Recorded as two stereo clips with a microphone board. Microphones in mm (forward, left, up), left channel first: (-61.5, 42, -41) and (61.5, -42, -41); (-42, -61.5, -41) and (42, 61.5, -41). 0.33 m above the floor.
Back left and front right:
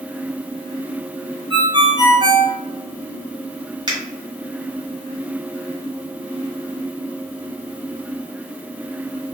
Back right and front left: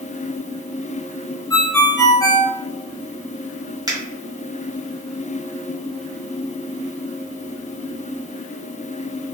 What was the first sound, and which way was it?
A ringtone, 70° right.